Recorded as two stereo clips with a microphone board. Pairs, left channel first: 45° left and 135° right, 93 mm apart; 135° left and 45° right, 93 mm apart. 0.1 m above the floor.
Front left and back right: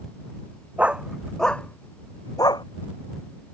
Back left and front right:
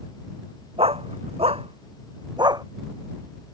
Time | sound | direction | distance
0.8 | a dog barking | 60° right | ?